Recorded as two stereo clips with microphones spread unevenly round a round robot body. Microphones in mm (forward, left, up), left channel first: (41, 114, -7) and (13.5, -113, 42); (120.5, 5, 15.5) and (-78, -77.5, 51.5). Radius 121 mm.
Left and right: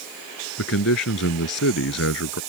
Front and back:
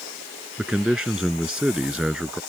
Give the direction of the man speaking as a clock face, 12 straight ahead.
8 o'clock.